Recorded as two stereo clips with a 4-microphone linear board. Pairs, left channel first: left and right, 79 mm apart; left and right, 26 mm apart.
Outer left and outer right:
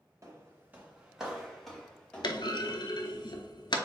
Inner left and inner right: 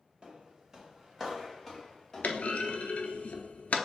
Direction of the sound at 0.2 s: 40° right (ahead or behind).